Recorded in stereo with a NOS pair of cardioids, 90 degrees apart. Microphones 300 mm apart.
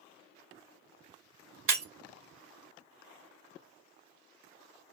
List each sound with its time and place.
1.7 s breaking glass: 45° right, 2.5 m